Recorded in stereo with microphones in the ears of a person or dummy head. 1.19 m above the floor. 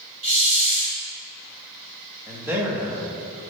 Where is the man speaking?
10° right (ahead or behind), 1.3 m.